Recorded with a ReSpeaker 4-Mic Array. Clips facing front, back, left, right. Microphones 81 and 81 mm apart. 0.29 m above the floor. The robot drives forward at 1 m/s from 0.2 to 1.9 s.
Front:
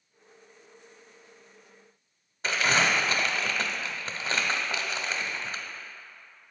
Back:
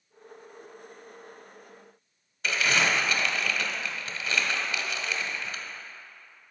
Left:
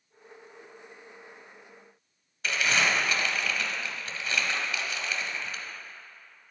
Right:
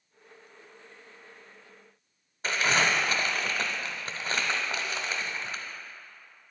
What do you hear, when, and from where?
2.4 s crumpling: 45° right, 1.0 m